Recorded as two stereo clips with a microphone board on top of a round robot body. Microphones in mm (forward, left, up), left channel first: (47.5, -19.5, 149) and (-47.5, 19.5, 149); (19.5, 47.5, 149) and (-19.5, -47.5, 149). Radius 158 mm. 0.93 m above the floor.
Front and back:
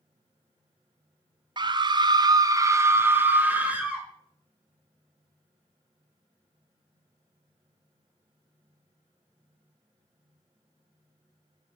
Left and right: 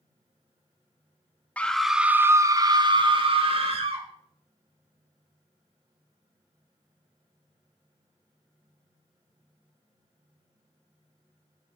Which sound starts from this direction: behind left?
A scream, at 1.6 s.